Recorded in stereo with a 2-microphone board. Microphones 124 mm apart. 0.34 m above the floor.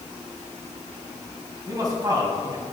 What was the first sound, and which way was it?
A man speaking, 30° right (ahead or behind).